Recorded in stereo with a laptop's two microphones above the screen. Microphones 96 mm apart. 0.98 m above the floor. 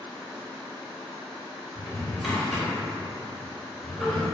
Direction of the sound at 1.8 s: 5° right (ahead or behind).